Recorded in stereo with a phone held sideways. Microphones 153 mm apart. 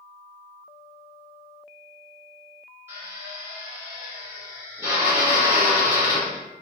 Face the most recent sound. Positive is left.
turn(degrees=-15)  # may be behind; listen again after turning